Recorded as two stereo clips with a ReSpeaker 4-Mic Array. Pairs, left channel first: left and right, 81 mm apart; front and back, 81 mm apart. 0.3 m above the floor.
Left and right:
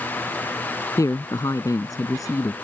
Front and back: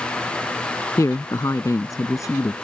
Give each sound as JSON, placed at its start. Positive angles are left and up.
{"t": 1.0, "sound": "a man speaking", "azimuth_deg": 45}